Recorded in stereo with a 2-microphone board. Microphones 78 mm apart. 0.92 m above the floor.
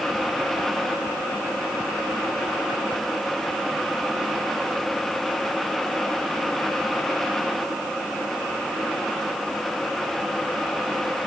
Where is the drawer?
No drawer in this recording.